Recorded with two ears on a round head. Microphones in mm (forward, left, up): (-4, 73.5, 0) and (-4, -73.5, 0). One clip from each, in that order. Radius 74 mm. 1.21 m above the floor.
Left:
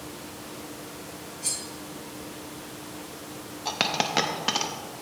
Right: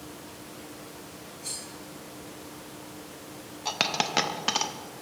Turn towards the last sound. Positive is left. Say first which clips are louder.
# left 1 dB
turn(degrees=-10)  # may be behind; listen again after turning